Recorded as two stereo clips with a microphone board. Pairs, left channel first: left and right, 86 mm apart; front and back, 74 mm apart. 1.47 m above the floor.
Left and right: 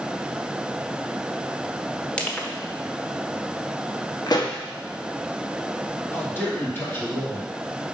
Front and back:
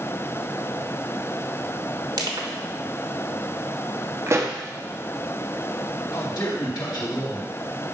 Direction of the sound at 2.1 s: 165° left.